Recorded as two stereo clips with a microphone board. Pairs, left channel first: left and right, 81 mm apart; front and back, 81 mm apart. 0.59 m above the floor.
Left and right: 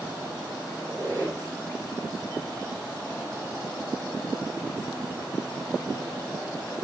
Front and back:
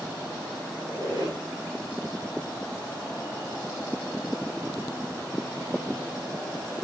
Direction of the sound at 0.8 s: 150° left.